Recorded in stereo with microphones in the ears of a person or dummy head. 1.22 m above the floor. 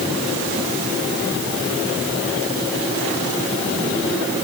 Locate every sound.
Only background noise.